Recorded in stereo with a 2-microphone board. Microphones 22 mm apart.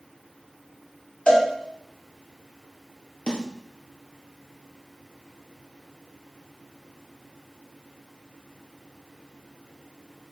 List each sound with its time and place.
1.3 s a cowbell: 55° left (ahead or behind), 4 m
3.3 s a snare drum: 50° left (ahead or behind), 5 m